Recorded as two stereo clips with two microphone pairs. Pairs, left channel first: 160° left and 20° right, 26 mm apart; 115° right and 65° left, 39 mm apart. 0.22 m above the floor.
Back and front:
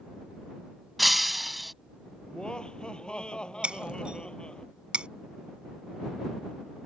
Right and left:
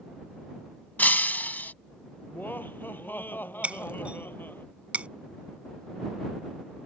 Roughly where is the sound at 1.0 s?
Right.